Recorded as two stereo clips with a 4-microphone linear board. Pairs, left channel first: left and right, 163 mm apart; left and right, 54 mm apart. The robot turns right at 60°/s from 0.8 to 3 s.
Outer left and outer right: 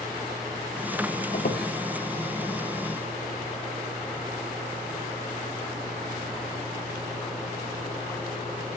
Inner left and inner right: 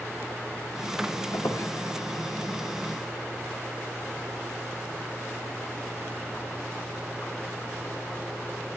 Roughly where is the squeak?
Left.